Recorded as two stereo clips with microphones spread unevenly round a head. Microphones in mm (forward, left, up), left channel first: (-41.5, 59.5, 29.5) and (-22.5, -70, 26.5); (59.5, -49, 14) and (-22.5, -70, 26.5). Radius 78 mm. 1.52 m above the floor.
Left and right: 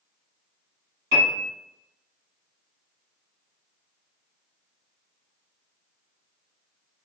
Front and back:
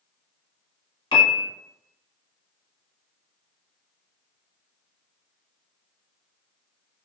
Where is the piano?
20° right, 1.3 m.